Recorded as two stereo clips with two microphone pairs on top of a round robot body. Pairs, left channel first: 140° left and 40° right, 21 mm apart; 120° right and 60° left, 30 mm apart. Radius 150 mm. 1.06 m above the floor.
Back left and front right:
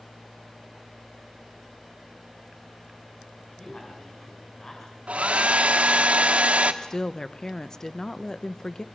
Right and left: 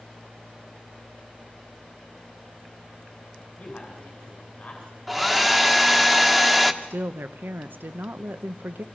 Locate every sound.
3.6 s a man speaking: 165° right, 5.5 m
5.1 s a hair dryer: 30° right, 1.2 m
6.8 s a woman speaking: 75° left, 0.8 m